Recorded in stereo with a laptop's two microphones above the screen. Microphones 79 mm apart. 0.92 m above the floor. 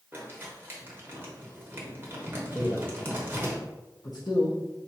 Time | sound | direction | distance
0.1 | crumpling | 25° right (ahead or behind) | 0.9 m
2.5 | a man speaking | 55° left (ahead or behind) | 0.9 m